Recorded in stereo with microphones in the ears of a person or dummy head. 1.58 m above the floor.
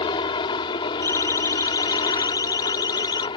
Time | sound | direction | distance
0.0 | a helicopter | 25° left (ahead or behind) | ?
1.0 | a siren | 20° left (ahead or behind) | ?